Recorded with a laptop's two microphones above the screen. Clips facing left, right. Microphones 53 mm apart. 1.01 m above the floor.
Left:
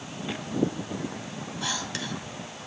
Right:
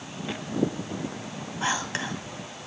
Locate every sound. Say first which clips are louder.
1.6 s whispering: right 6 dB; 30° right (ahead or behind), 1.9 m